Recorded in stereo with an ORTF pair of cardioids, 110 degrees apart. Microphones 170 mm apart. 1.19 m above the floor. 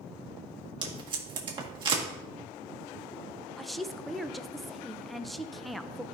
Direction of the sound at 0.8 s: 30° right.